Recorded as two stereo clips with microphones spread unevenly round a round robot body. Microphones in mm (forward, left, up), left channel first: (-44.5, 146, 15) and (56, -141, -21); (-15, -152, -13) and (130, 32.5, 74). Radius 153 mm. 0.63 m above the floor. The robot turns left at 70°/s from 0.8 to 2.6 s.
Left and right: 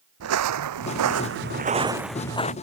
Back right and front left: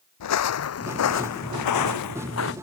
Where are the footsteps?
115° right; by 2.5 s 175° left.